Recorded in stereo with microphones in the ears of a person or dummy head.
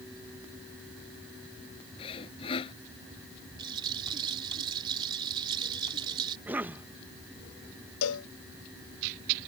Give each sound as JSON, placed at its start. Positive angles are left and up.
{"t": 2.0, "sound": "sawing", "side_deg": 30}
{"t": 3.6, "sound": "a rattle", "side_deg": -25}
{"t": 6.5, "sound": "a cough", "side_deg": -10}
{"t": 8.0, "sound": "a cowbell", "side_deg": 80}